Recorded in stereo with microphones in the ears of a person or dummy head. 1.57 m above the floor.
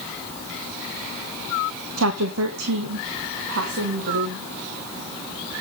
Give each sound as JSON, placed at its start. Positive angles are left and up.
{"t": 2.0, "sound": "a woman speaking", "side_deg": -80, "distance_m": 1.3}